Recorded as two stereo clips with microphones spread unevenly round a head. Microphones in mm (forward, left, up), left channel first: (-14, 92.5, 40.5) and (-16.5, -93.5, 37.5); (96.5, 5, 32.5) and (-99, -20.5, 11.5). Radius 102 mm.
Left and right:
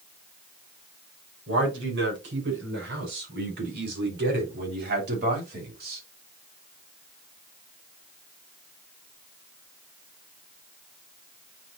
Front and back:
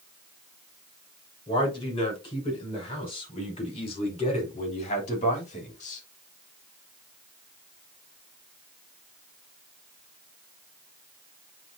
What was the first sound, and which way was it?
A man speaking, 60° right.